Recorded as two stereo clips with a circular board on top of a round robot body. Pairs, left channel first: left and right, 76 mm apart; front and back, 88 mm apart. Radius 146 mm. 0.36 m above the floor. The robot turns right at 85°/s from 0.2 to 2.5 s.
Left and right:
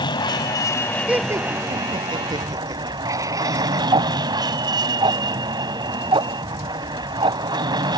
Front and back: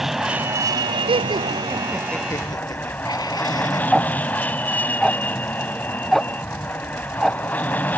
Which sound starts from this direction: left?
An aircraft, at 0.0 s.